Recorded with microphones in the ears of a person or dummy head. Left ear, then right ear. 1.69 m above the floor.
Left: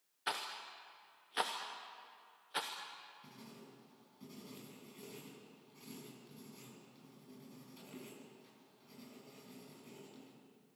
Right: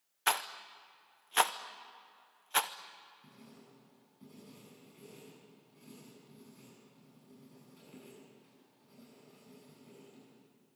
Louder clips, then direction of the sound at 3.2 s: Left 2 dB; 25° left (ahead or behind).